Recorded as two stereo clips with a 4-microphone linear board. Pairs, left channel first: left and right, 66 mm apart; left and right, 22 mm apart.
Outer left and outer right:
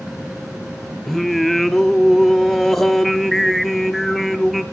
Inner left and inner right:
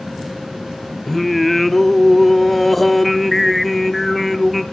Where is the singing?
Centre (ahead or behind), 0.6 m.